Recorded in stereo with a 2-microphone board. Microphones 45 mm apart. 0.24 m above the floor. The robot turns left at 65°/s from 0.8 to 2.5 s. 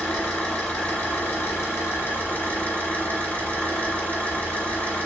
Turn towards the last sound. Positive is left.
turn(degrees=40)